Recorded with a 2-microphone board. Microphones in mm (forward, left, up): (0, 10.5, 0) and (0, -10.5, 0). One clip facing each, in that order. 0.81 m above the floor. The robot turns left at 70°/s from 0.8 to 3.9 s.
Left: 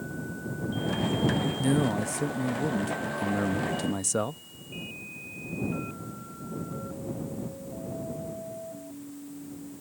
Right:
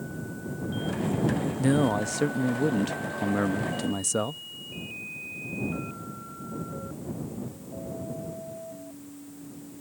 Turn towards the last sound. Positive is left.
turn(degrees=180)